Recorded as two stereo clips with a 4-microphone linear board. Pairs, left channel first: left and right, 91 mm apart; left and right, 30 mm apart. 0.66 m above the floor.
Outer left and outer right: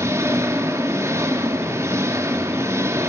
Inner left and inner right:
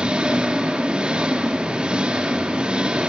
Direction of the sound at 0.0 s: 30° right (ahead or behind).